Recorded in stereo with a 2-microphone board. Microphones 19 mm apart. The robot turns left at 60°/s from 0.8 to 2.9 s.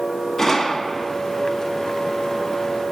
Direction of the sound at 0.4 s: 25° left (ahead or behind).